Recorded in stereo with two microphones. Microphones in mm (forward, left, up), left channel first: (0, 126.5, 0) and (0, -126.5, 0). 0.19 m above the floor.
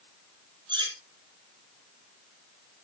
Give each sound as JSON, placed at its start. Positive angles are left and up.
{"t": 0.7, "sound": "cutlery clinking", "side_deg": -15, "distance_m": 2.5}